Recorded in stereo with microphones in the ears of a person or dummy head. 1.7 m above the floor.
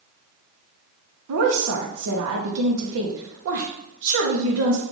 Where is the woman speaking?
65° right (ahead or behind), 0.8 m.